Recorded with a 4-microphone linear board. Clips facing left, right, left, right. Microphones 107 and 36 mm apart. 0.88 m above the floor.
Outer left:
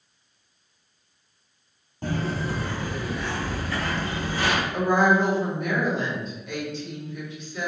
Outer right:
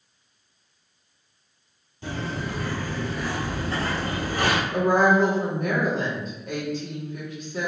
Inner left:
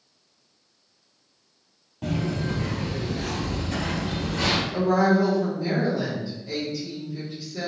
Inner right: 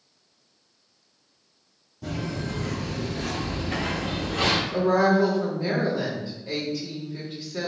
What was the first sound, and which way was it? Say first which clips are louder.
Footsteps: outer left 3 dB, inner left 4 dB; 50° left (ahead or behind).